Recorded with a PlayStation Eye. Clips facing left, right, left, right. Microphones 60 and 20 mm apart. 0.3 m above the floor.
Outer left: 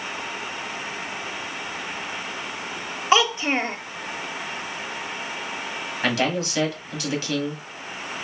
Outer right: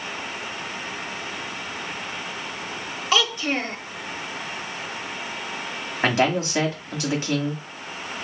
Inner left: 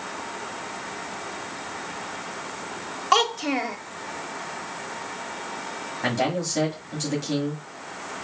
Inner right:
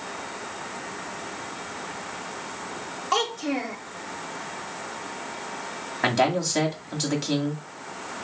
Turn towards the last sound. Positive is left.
turn(degrees=-30)  # may be behind; listen again after turning